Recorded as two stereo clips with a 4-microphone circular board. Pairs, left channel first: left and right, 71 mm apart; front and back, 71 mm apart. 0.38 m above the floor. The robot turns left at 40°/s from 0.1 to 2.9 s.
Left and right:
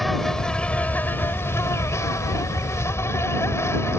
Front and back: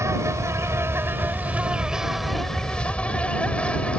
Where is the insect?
Straight behind; by 4.0 s 65° left.